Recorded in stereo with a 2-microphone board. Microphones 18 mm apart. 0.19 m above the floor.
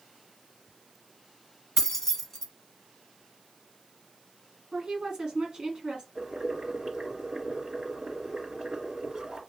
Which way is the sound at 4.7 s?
45° right (ahead or behind).